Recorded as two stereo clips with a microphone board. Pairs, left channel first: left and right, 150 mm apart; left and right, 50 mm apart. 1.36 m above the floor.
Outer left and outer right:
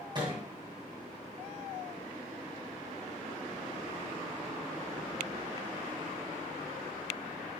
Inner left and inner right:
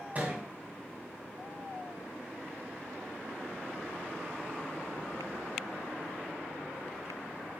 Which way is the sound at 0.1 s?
30° right (ahead or behind).